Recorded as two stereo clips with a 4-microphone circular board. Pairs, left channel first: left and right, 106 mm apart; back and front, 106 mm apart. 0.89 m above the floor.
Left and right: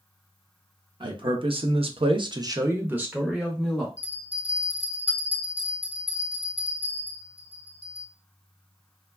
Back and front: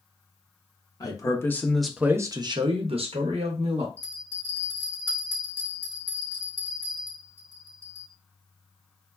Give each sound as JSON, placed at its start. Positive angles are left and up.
{"t": 1.0, "sound": "a man speaking", "azimuth_deg": -130, "distance_m": 0.8}
{"t": 4.0, "sound": "a bell", "azimuth_deg": -70, "distance_m": 1.3}